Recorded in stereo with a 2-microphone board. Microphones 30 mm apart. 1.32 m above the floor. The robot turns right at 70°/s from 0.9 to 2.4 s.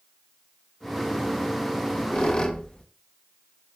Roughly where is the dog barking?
I don't hear a dog barking.